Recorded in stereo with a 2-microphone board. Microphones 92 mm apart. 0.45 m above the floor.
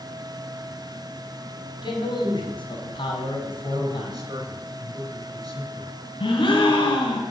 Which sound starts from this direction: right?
A man speaking, at 3.7 s.